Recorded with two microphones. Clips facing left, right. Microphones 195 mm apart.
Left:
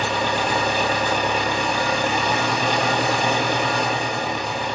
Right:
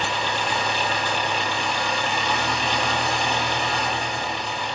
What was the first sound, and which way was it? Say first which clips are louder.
An engine running: left 4 dB; 50° left (ahead or behind).